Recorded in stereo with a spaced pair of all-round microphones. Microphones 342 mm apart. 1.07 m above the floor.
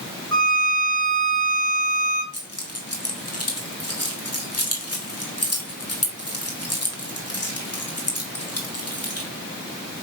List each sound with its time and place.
0.3 s a violin: 15° left (ahead or behind), 4 m
2.3 s keys jangling: 50° left (ahead or behind), 2.5 m